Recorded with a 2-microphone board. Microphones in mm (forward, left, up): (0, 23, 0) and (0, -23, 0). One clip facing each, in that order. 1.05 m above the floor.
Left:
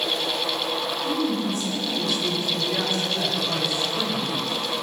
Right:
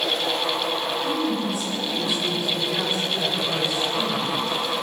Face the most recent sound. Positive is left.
turn(degrees=-10)  # may be behind; listen again after turning